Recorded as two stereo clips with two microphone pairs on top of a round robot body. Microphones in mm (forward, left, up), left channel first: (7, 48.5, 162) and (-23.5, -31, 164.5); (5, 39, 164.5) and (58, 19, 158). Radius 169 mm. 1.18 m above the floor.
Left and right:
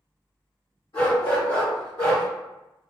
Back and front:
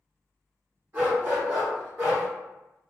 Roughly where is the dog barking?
Ahead left.